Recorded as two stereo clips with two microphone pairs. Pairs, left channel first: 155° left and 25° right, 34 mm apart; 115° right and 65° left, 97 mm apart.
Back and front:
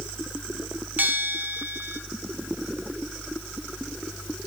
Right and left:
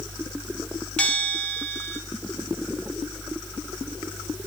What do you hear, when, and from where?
1.0 s a bell: 40° right, 2 m